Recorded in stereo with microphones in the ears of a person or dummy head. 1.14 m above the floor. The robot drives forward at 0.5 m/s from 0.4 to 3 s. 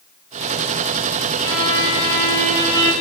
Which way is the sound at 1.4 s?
55° left (ahead or behind).